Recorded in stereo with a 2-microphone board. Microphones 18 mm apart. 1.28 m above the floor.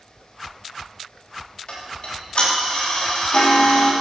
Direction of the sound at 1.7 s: 55° left (ahead or behind).